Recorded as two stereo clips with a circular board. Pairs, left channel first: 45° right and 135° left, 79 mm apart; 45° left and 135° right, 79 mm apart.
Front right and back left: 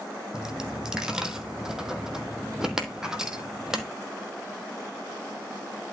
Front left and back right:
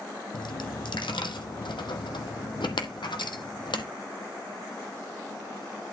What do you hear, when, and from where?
0.3 s a dropped coin: 55° left, 1.0 m